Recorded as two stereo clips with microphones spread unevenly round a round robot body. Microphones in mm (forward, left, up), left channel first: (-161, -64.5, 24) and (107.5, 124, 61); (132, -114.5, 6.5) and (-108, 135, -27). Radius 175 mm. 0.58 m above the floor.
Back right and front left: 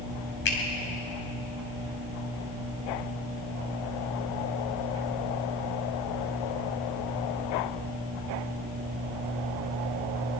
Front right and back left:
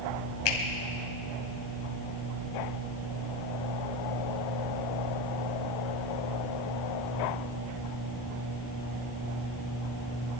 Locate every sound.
0.5 s a finger snap: 85° right, 3 m